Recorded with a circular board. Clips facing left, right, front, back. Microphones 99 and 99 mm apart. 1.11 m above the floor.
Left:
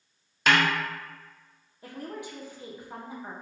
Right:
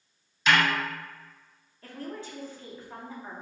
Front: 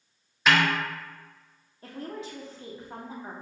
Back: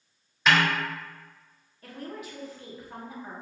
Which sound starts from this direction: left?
A snare drum, at 0.5 s.